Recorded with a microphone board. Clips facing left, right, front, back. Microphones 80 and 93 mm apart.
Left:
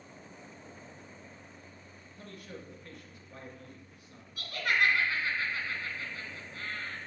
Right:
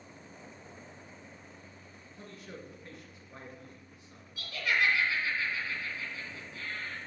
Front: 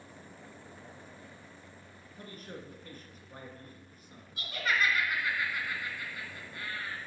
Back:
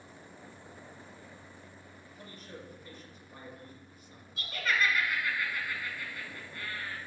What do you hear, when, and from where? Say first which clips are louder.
2.2 s a man speaking: even, front 3 dB; 30° right, 1.9 m
4.4 s laughter: left 1 dB, even; 55° left, 2.5 m